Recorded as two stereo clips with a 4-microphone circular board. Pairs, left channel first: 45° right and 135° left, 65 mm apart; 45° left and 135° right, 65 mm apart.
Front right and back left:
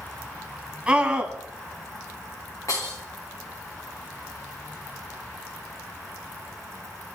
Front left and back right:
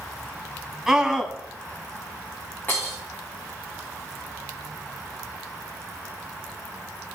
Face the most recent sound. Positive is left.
turn(degrees=-10)